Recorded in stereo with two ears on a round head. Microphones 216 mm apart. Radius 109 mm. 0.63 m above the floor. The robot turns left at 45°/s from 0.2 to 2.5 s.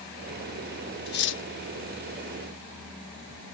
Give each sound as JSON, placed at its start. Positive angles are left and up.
{"t": 1.1, "sound": "cutlery clinking", "side_deg": 40}